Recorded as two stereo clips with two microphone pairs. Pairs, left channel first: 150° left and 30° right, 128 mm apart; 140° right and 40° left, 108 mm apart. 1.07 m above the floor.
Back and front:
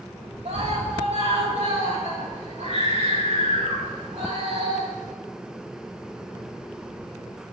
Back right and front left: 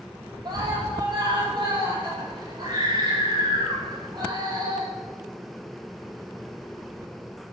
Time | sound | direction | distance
0.5 | a scream | 5° right | 8 m